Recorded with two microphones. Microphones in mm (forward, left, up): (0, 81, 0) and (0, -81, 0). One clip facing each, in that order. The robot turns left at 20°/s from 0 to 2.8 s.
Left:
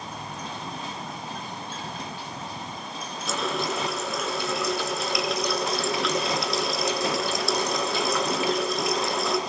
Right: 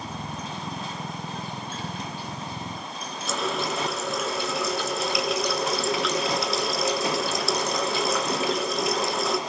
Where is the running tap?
Centre (ahead or behind), 2 m.